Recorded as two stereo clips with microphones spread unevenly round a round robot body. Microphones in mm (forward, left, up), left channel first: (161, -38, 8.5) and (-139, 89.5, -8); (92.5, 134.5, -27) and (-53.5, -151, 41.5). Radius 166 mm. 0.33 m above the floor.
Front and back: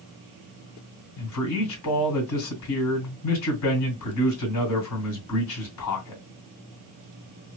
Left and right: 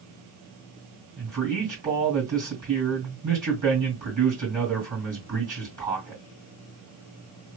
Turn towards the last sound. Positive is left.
turn(degrees=-45)